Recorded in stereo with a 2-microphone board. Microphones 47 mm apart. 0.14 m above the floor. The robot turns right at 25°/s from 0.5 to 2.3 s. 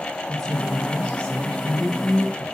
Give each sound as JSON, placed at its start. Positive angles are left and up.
{"t": 0.3, "sound": "a woman speaking", "azimuth_deg": 5, "distance_m": 2.0}